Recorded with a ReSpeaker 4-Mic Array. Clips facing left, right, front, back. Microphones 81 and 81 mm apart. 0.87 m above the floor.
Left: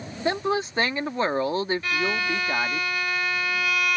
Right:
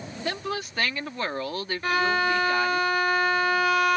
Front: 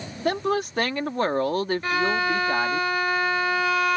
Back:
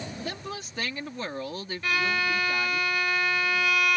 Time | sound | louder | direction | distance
0.2 | a woman speaking | left 7 dB, front 12 dB | 25° left | ?
1.8 | a violin | right 3 dB, even | 50° right | ?